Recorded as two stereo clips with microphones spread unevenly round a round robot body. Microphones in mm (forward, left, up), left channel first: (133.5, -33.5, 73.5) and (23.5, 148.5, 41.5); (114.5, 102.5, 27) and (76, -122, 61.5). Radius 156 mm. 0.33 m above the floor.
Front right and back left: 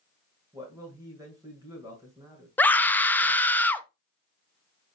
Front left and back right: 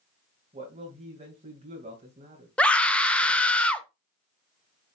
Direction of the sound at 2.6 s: 35° left.